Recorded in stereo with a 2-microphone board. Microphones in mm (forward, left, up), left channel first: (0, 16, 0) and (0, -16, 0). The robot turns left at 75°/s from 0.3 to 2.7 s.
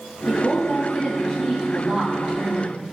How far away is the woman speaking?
About 3 m.